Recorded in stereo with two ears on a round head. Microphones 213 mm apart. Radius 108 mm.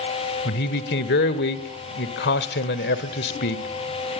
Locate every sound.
0.5 s a man speaking: 45° left (ahead or behind), 1.7 m